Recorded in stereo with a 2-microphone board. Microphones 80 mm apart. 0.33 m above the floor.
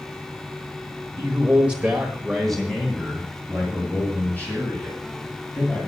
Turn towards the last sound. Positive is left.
turn(degrees=25)  # may be behind; listen again after turning